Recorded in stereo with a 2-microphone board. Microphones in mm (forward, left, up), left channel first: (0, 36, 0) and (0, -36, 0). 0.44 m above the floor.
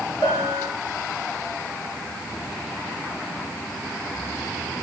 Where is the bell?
80° left, 3.5 m.